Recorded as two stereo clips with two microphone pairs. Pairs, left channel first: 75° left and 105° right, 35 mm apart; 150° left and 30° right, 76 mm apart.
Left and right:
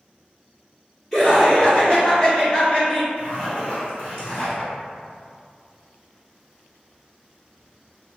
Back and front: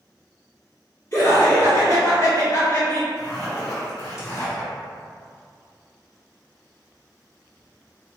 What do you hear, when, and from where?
1.1 s laughter: 135° left, 1.7 m; by 3.1 s 105° left, 2.5 m
3.2 s a zipper: 125° left, 1.5 m